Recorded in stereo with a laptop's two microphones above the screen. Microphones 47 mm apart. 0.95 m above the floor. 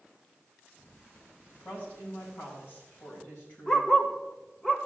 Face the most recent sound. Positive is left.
turn(degrees=15)  # may be behind; listen again after turning